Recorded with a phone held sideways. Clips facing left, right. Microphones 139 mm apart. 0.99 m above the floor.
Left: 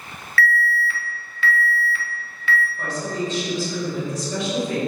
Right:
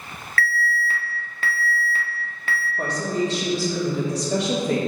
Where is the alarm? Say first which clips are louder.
Left 3 dB; 45° right (ahead or behind), 1.3 m.